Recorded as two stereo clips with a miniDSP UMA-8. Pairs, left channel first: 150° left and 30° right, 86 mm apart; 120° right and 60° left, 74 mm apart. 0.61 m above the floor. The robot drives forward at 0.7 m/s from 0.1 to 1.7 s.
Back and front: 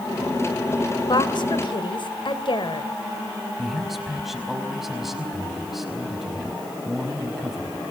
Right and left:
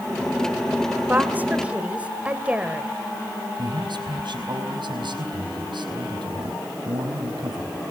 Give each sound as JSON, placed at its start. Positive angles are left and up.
{"t": 1.1, "sound": "a woman speaking", "azimuth_deg": 125, "distance_m": 2.0}
{"t": 3.6, "sound": "a man speaking", "azimuth_deg": 60, "distance_m": 4.5}